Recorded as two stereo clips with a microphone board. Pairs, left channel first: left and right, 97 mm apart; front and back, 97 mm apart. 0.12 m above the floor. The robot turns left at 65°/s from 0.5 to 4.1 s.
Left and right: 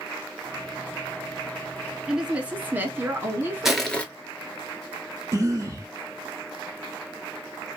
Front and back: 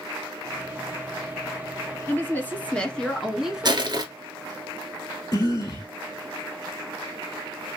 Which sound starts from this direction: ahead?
A woman speaking, at 2.1 s.